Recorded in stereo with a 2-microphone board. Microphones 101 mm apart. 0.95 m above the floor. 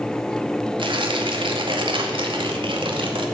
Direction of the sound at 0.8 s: 60° right (ahead or behind).